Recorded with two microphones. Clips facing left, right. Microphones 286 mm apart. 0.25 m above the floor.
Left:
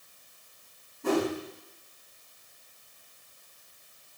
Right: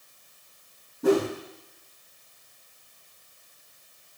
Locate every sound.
1.0 s a whoosh: 80° right, 4 m